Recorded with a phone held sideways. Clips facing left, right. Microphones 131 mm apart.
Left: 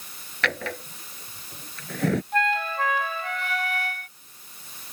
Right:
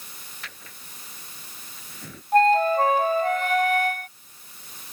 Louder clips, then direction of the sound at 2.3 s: Right 8 dB; 45° right (ahead or behind).